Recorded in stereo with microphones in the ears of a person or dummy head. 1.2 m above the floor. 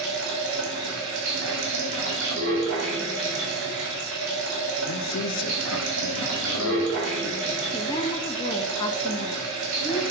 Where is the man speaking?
75° left (ahead or behind), 0.6 m.